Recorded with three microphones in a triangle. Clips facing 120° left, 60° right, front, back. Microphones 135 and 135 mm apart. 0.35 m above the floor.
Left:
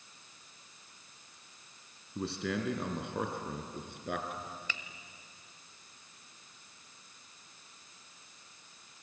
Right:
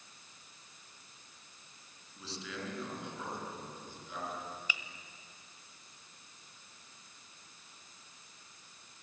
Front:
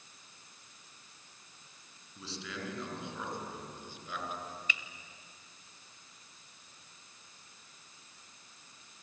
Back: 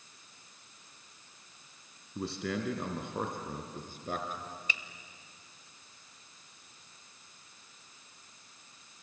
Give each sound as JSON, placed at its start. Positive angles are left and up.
{"t": 2.1, "sound": "a man speaking", "azimuth_deg": 150, "distance_m": 3.5}
{"t": 4.7, "sound": "a finger snap", "azimuth_deg": -135, "distance_m": 1.1}